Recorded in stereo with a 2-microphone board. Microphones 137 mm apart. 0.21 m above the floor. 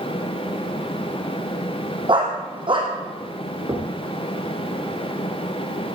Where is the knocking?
35° right (ahead or behind), 2 m.